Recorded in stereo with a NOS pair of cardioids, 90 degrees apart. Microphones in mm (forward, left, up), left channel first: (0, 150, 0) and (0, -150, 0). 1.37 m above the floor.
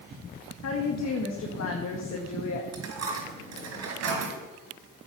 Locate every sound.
0.6 s a woman speaking: 60° left, 1.7 m
2.7 s a dropped coin: 60° right, 4 m